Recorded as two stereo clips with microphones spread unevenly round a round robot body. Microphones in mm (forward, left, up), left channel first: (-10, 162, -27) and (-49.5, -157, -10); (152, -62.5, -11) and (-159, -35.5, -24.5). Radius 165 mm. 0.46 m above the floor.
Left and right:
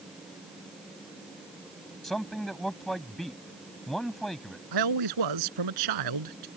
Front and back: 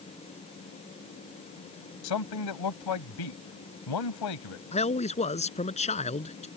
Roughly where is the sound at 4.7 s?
Right.